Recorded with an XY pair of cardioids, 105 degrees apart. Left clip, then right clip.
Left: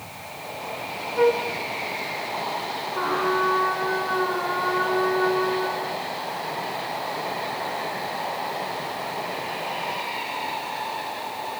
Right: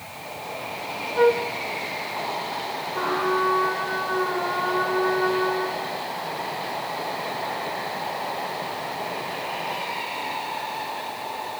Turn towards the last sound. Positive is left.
turn(degrees=-5)